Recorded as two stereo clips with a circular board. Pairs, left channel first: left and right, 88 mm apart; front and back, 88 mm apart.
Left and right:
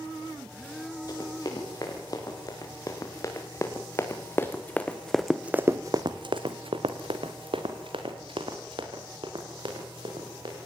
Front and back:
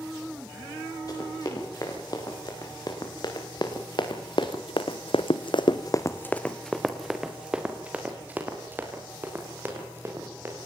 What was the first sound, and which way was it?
Running footsteps, 45° left.